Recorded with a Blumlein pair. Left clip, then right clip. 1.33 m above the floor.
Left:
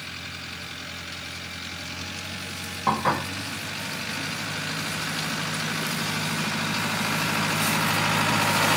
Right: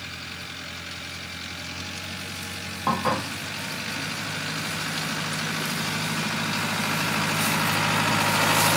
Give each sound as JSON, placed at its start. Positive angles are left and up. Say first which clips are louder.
{"t": 2.9, "sound": "dishes clattering", "louder": "left 1 dB", "azimuth_deg": 0, "distance_m": 0.9}